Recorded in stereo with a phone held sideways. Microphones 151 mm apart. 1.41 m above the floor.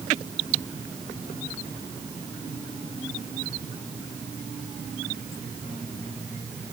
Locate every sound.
Only background noise.